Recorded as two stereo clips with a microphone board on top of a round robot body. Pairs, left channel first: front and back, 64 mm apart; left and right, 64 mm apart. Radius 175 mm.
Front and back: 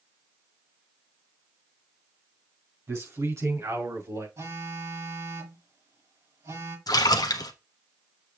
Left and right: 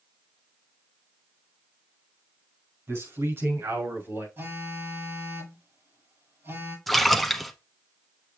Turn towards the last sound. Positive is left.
turn(degrees=0)